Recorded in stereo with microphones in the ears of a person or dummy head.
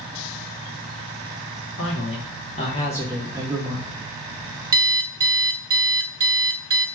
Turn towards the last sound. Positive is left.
turn(degrees=-20)  # may be behind; listen again after turning